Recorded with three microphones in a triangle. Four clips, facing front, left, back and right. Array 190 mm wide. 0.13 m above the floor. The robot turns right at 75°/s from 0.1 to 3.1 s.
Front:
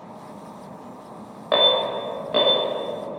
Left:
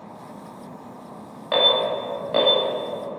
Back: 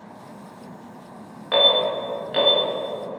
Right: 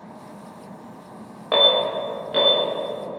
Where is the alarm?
30° right, 0.9 m; by 2.6 s 55° left, 0.9 m.